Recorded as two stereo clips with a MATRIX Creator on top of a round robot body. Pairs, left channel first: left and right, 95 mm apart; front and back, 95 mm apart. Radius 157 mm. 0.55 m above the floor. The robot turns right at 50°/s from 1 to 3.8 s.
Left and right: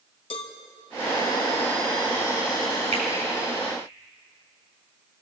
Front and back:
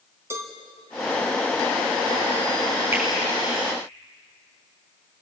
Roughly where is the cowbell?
Behind left.